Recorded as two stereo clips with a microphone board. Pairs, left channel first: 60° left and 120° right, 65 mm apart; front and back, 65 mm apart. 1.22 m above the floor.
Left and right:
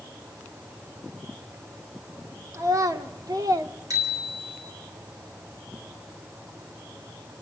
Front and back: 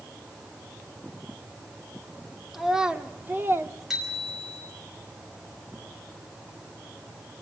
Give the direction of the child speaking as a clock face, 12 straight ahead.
3 o'clock.